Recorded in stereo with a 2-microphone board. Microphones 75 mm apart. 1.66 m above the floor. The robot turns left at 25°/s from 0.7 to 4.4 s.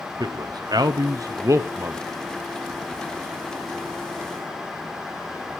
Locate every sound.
0.2 s a man speaking: 65° right (ahead or behind), 0.6 m; by 2.0 s 35° right (ahead or behind), 0.6 m